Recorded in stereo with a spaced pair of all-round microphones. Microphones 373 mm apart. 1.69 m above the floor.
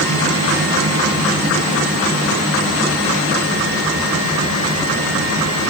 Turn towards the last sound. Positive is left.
No sound to turn to.